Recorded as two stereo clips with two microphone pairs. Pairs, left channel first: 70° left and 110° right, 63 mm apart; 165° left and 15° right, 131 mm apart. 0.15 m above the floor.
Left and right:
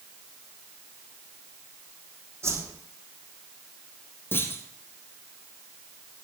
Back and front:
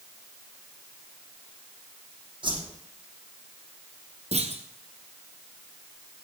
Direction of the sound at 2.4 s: 70° right.